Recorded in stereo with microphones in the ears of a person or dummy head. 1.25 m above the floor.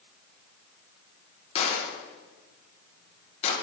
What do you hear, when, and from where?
1.6 s a gunshot: 35° left (ahead or behind), 1.1 m